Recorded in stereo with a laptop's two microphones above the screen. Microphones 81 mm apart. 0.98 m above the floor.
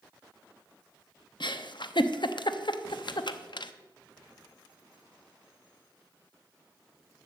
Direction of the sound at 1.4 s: 65° left (ahead or behind).